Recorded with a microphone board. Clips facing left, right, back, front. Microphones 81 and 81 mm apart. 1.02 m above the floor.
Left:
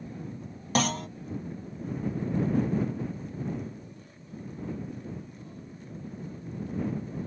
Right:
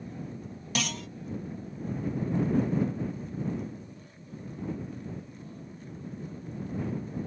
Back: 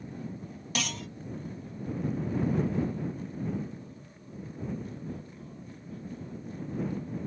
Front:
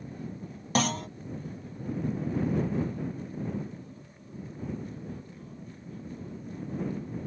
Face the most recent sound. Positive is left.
turn(degrees=45)